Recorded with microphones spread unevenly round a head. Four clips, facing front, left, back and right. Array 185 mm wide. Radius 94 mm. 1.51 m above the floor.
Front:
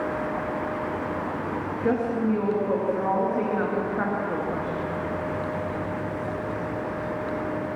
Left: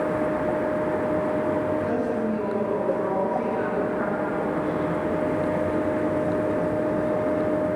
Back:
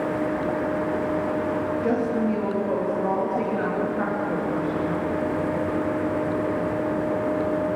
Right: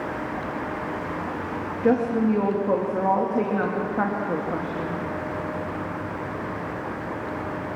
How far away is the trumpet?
I don't hear a trumpet.